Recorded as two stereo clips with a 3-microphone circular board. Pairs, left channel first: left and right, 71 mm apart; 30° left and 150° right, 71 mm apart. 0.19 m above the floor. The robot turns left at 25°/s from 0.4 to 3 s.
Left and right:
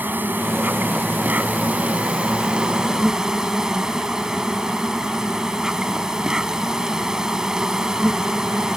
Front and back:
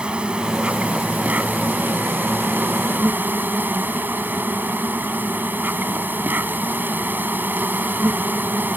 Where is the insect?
95° right; by 8.8 s 160° right.